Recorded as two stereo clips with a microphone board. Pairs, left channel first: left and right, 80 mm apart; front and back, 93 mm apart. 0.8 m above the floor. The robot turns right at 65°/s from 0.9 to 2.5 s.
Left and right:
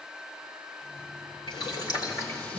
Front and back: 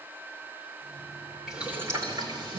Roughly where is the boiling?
Left.